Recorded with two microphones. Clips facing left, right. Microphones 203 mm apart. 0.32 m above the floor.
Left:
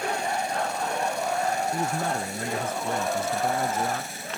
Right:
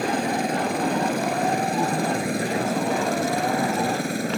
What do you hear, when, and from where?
0.0 s a helicopter: 70° right (ahead or behind)
1.7 s a man speaking: 10° right (ahead or behind)